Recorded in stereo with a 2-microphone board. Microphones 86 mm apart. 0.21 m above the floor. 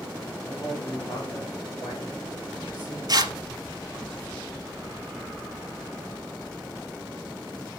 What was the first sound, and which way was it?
A man speaking, 45° left (ahead or behind).